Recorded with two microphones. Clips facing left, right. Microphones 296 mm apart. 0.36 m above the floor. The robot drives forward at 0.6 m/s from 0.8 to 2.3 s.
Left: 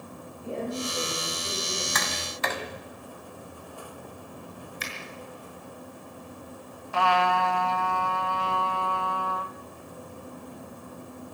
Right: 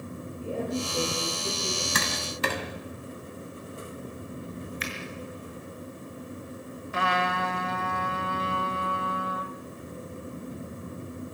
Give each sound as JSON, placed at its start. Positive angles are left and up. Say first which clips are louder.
{"t": 0.4, "sound": "a woman speaking", "louder": "right 1 dB", "side_deg": -35, "distance_m": 10.0}
{"t": 1.9, "sound": "tapping", "louder": "right 2 dB", "side_deg": -35, "distance_m": 2.5}
{"t": 4.8, "sound": "a finger snap", "louder": "right 4 dB", "side_deg": 50, "distance_m": 6.0}
{"t": 6.9, "sound": "a trumpet", "louder": "left 4 dB", "side_deg": -20, "distance_m": 1.1}